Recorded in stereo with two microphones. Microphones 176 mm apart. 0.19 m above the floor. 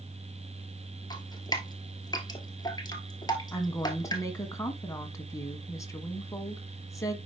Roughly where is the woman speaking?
Centre.